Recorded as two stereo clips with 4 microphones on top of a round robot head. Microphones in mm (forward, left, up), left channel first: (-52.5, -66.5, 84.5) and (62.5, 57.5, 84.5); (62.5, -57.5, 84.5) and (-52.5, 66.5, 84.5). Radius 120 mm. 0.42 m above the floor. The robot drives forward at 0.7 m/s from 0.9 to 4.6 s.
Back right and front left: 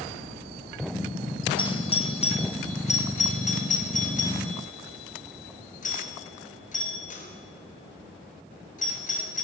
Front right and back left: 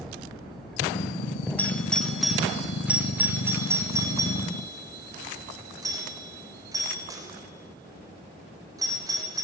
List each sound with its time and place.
1.6 s a doorbell: 120° right, 2 m; by 9.4 s 160° right, 3.5 m